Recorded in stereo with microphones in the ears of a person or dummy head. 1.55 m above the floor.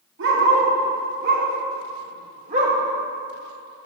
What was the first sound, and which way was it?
A dog barking, 60° right (ahead or behind).